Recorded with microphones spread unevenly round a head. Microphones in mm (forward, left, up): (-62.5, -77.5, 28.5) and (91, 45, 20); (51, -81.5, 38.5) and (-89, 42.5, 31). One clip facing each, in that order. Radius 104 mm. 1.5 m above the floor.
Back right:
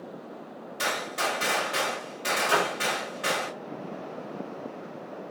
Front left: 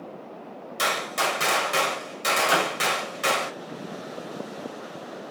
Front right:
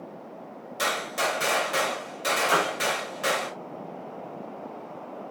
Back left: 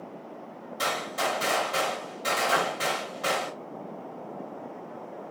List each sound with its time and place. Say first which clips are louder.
0.8 s a gunshot: front left 3 dB, front right 1 dB; 20° left, 1.9 m
2.5 s a piano: back right 1 dB, front right 3 dB; 20° right, 1.9 m